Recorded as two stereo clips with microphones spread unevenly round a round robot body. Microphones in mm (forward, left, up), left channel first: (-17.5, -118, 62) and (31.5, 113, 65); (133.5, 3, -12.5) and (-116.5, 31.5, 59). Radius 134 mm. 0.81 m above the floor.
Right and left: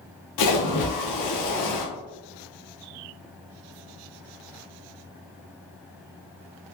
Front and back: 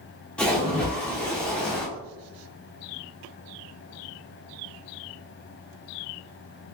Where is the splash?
100° right, 0.5 m.